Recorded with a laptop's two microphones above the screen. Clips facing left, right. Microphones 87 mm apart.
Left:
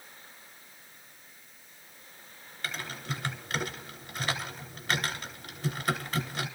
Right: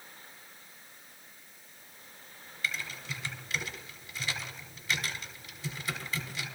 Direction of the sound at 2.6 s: 60° left (ahead or behind).